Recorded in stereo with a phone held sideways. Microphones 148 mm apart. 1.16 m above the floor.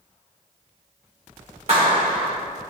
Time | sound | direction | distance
1.7 | a clap | 50° right (ahead or behind) | 2.5 m